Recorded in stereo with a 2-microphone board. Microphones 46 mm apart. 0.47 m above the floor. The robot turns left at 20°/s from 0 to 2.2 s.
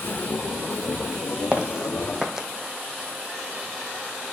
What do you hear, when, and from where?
1.5 s footsteps: 25° right (ahead or behind), 0.9 m; by 2.5 s 15° right (ahead or behind), 0.9 m